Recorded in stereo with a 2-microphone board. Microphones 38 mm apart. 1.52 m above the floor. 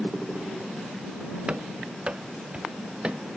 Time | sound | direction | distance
1.5 | running footsteps | 30° right (ahead or behind) | ?